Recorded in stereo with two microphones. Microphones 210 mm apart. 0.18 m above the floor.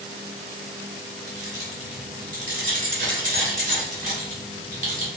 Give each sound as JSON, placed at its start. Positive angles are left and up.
{"t": 1.3, "sound": "keys jangling", "side_deg": -40, "distance_m": 1.0}